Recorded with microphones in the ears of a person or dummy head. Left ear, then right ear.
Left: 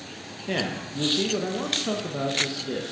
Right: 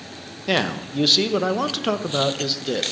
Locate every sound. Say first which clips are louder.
0.5 s a man speaking: right 6 dB; 50° right (ahead or behind), 0.9 m